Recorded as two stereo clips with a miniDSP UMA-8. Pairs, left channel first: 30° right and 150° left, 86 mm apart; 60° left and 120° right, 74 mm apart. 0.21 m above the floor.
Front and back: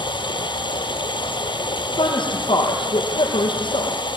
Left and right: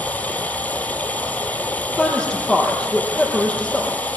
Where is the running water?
10° right, 2.5 m.